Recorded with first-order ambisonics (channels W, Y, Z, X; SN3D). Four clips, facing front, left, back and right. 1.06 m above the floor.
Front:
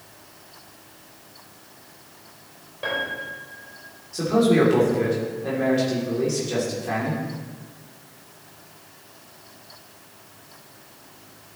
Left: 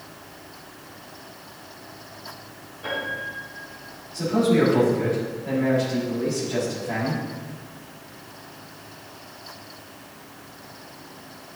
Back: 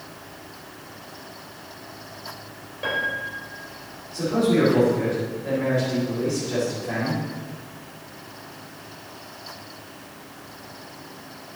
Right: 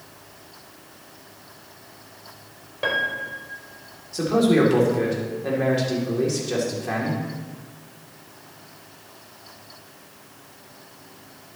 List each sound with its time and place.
2.8 s a piano: 90° right, 2.5 m
4.1 s a man speaking: 70° right, 3 m